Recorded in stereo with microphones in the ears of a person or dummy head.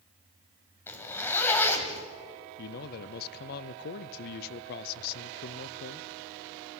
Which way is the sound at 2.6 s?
50° left (ahead or behind).